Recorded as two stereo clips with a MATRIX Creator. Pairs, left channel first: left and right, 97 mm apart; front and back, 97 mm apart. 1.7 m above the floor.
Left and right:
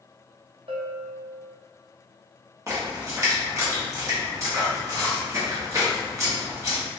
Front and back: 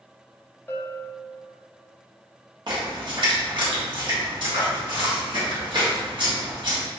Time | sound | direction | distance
0.7 | a bell | 65° right | 0.6 m
2.7 | a splash | 150° right | 1.0 m